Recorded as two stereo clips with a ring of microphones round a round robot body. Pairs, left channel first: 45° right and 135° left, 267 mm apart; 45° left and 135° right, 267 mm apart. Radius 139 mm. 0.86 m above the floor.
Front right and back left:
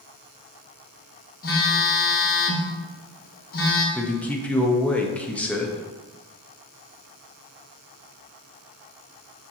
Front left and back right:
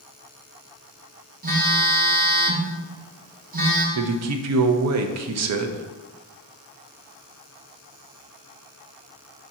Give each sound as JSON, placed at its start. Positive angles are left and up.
{"t": 1.4, "sound": "a phone buzzing", "azimuth_deg": -90, "distance_m": 1.1}
{"t": 4.0, "sound": "a man speaking", "azimuth_deg": -130, "distance_m": 0.6}